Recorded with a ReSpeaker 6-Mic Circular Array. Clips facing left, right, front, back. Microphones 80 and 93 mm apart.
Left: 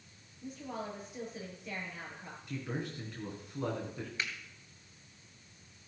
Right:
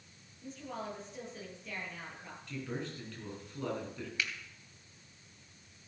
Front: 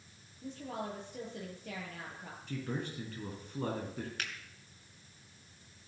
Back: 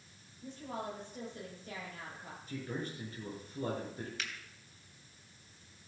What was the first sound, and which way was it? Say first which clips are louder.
A woman speaking: left 1 dB, front 1 dB; 10° left.